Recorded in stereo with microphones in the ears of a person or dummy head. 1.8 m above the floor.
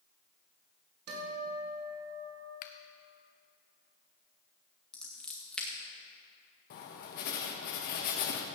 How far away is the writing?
About 1.4 m.